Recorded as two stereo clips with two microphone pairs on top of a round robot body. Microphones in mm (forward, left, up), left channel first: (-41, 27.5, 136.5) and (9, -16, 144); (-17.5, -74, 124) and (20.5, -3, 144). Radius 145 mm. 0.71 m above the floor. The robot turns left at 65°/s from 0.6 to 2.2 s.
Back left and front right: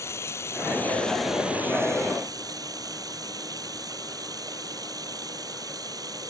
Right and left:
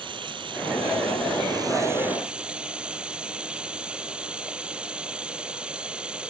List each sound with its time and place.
0.0 s running water: 90° left; by 6.3 s 15° right